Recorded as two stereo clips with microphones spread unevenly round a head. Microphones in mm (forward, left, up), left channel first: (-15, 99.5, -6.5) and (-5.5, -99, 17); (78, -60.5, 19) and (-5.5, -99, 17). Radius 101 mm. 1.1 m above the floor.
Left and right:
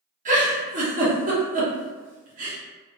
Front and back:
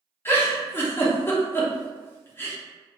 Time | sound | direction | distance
0.2 | a giggle | 40° right | 0.9 m